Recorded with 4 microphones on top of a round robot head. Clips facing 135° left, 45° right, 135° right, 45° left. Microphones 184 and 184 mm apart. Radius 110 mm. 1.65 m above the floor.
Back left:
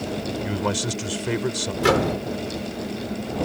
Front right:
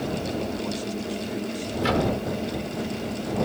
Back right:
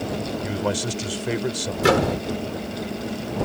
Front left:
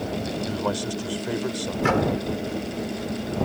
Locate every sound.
0.4 s a man speaking: 150° left
1.8 s a microwave: 170° left